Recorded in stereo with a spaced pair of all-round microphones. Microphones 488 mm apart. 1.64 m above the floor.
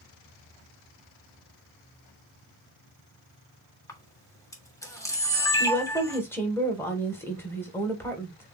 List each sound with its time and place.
3.9 s a camera shutter: 5° left (ahead or behind), 1.4 m
5.6 s a woman speaking: 5° left (ahead or behind), 1.6 m